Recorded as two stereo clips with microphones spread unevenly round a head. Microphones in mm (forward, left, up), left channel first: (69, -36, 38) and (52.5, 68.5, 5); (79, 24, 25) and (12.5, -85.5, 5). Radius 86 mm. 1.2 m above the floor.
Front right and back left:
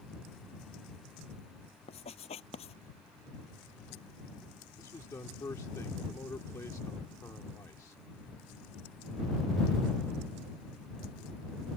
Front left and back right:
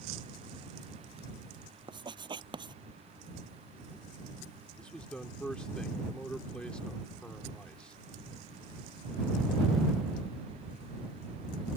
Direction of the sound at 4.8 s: 25° right.